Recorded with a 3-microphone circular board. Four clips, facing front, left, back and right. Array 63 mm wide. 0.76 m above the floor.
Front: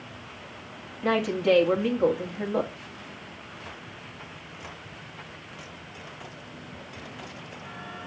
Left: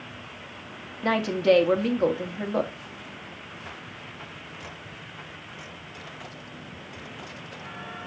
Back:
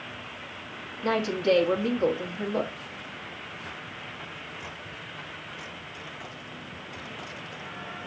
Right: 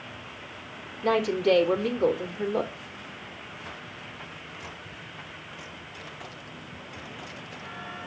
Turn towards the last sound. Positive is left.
turn(degrees=75)